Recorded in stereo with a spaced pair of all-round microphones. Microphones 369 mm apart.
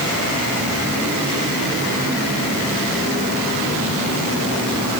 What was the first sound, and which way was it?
Only background noise.